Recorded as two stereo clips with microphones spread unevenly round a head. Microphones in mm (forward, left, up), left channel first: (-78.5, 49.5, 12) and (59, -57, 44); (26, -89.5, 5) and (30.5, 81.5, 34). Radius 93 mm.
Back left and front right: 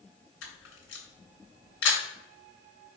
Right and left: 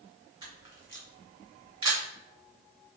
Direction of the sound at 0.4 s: 150° left.